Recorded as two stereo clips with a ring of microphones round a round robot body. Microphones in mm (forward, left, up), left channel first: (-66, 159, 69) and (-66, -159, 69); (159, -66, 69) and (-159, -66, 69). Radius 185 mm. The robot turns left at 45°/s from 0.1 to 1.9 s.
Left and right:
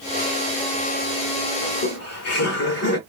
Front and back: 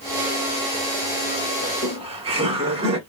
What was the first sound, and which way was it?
Laughter, 125° left.